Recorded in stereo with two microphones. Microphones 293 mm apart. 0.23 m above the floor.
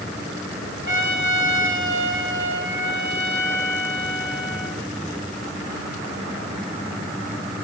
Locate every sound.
0.9 s a trumpet: 75° left (ahead or behind), 4 m